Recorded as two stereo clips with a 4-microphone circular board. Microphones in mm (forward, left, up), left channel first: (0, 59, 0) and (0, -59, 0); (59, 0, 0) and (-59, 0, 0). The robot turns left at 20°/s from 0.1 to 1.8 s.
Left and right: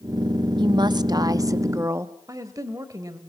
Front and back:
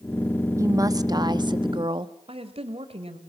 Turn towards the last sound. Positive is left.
turn(degrees=-150)